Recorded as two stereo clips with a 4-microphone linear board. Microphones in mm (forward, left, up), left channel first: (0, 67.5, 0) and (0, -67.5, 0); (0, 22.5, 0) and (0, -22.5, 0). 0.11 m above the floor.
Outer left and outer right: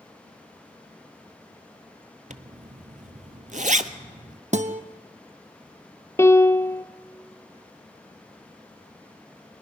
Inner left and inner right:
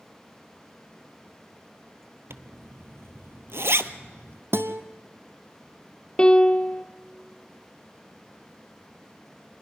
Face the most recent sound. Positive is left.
turn(degrees=20)  # may be behind; listen again after turning